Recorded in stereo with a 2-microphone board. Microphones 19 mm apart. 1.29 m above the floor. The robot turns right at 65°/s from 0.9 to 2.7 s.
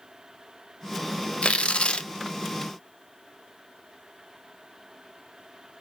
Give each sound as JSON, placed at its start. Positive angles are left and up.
{"t": 1.4, "sound": "tearing paper", "azimuth_deg": 80, "distance_m": 0.9}